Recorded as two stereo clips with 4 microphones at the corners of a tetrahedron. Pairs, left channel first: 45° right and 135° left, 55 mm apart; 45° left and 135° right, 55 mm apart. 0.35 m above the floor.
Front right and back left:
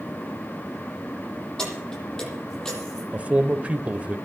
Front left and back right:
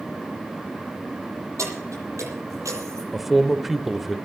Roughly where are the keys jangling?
Behind right.